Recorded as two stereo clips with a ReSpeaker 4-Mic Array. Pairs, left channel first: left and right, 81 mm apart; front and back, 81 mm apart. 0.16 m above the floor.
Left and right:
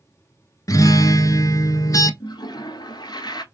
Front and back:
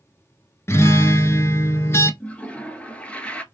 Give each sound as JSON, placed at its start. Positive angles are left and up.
{"t": 0.7, "sound": "a guitar", "azimuth_deg": 55, "distance_m": 0.5}
{"t": 2.2, "sound": "a toilet flushing", "azimuth_deg": 75, "distance_m": 0.6}